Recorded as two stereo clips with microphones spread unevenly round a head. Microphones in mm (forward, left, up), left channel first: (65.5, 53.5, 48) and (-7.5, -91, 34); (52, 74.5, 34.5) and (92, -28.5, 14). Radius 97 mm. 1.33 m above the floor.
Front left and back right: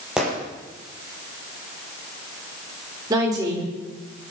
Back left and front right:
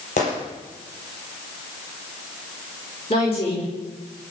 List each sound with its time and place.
0.2 s a gunshot: 155° left, 5.5 m
3.1 s a woman speaking: 170° left, 5 m